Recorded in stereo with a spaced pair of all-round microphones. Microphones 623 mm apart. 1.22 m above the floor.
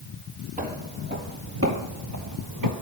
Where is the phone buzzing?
I don't hear a phone buzzing.